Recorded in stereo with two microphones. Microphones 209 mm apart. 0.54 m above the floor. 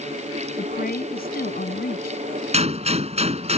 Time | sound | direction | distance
0.6 | a woman speaking | 45° left (ahead or behind) | ?
2.5 | a gunshot | 30° right (ahead or behind) | ?